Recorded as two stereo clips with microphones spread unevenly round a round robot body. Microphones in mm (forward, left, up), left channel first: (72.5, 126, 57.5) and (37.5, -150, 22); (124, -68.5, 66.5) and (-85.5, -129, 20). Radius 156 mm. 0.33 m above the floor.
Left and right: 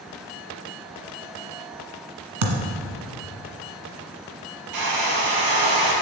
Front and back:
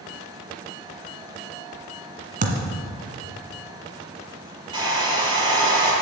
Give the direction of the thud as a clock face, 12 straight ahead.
4 o'clock.